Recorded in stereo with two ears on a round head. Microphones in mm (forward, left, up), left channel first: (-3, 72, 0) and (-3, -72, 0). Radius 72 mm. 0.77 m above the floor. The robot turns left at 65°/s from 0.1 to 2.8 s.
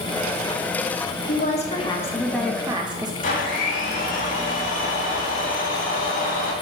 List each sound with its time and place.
1.3 s a woman speaking: 70° left, 1.0 m; by 3.1 s 30° right, 1.0 m
3.2 s a blender: 55° left (ahead or behind), 1.3 m